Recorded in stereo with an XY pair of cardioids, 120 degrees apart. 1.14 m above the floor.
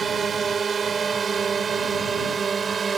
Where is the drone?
35° right.